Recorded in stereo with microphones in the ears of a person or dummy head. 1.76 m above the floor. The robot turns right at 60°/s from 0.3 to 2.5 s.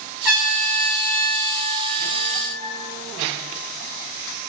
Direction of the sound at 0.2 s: 10° right (ahead or behind).